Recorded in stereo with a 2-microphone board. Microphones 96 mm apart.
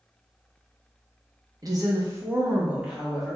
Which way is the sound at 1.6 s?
40° right (ahead or behind).